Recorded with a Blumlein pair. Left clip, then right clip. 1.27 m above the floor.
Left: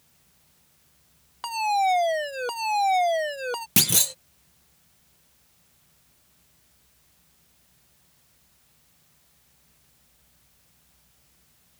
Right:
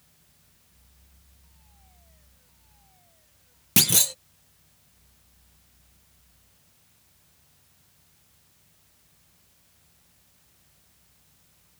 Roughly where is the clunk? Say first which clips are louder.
Right 2 dB; ahead.